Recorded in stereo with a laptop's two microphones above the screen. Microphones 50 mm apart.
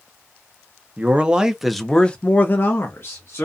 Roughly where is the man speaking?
Right.